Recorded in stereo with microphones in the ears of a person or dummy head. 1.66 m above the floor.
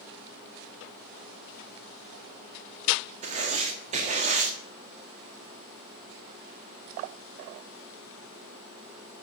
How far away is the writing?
About 1.6 m.